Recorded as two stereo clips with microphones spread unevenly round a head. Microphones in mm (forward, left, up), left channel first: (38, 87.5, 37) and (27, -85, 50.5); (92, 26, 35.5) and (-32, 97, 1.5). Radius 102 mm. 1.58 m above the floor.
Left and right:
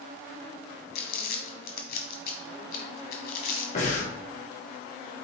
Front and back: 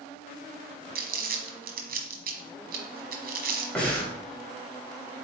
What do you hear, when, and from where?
0.9 s crumpling: 130° left, 1.4 m
3.8 s breathing: 45° left, 2.5 m